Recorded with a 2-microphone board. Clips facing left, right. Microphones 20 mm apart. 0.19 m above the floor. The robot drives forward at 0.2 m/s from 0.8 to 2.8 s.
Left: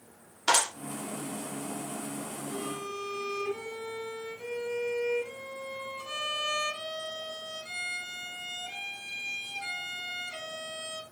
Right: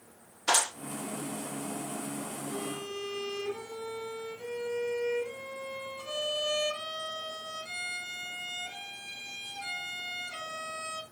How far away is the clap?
About 1.8 m.